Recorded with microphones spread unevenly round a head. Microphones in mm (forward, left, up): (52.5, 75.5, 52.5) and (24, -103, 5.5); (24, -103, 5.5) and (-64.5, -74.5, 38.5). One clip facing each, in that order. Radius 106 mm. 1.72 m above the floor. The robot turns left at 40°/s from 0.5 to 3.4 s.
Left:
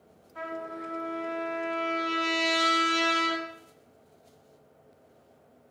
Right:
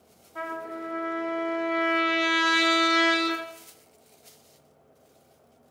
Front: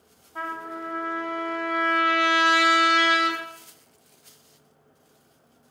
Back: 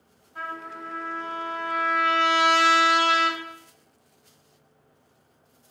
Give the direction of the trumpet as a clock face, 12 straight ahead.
3 o'clock.